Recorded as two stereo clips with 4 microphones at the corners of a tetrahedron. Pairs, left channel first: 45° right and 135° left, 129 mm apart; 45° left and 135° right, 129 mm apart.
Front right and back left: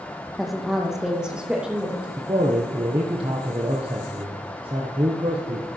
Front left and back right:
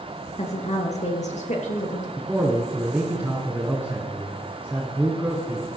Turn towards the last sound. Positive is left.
turn(degrees=155)